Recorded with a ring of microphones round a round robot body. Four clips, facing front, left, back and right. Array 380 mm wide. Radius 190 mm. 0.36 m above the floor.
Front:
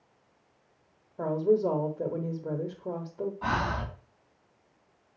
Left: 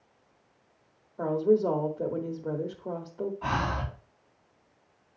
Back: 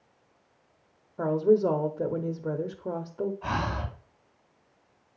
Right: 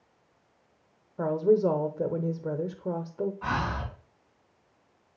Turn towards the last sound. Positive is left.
turn(degrees=-20)